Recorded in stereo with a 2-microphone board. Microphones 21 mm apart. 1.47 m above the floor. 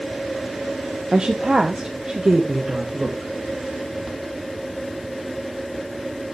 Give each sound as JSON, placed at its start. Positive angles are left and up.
{"t": 1.1, "sound": "a woman speaking", "side_deg": -45, "distance_m": 1.0}